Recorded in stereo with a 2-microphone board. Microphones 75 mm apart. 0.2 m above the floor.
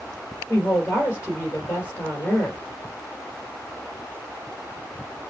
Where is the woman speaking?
30° left (ahead or behind), 2.5 m.